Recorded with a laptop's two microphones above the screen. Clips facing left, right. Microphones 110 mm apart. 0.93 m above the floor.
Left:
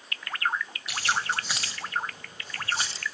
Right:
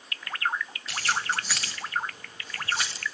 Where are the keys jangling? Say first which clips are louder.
Even; 10° left (ahead or behind), 3 m; by 3.0 s 30° left (ahead or behind), 3.5 m.